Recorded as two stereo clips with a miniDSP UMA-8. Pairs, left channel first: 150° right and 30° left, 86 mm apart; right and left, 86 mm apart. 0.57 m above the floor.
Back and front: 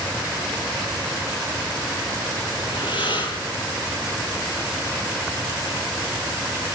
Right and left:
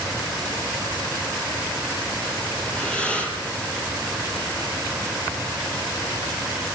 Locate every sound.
2.6 s breathing: 165° right, 4 m